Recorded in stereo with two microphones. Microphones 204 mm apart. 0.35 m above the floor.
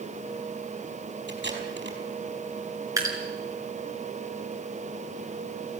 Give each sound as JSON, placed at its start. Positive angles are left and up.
{"t": 1.3, "sound": "tape being pulled", "side_deg": -60, "distance_m": 4.5}
{"t": 3.0, "sound": "dripping", "side_deg": -15, "distance_m": 5.5}